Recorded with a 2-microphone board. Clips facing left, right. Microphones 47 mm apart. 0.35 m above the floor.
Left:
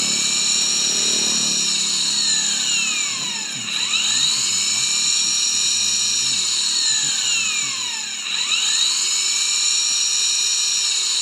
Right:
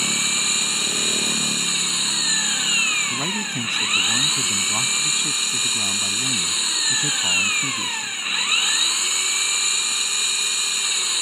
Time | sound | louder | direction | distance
0.0 | an engine running | right 1 dB | 20° right (ahead or behind) | ?
3.1 | a man speaking | right 4 dB | 55° right (ahead or behind) | ?